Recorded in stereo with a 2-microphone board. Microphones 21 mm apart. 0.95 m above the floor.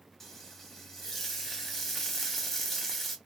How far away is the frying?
About 0.8 m.